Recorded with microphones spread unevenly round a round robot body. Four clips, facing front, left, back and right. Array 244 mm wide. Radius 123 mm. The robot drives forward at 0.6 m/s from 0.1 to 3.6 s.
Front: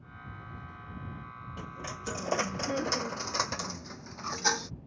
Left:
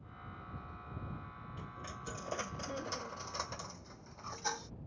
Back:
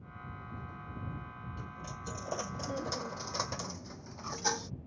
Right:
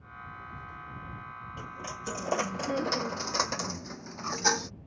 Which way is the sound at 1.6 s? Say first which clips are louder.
Right 7 dB, front 7 dB; 35° right.